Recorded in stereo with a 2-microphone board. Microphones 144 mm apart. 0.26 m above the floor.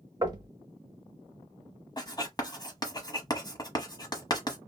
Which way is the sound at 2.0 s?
30° left (ahead or behind).